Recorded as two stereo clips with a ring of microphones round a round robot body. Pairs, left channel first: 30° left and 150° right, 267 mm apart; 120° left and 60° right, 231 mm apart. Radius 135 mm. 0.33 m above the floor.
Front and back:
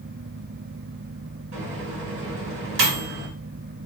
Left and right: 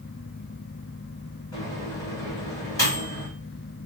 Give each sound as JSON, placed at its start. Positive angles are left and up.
{"t": 1.5, "sound": "a microwave", "azimuth_deg": -170, "distance_m": 0.9}